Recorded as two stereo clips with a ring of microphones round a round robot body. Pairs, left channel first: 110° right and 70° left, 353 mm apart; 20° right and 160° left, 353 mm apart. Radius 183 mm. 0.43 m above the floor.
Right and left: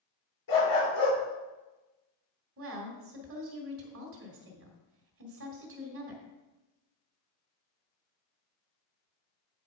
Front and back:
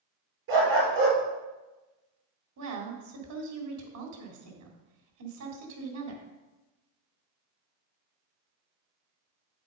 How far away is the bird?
No bird in this recording.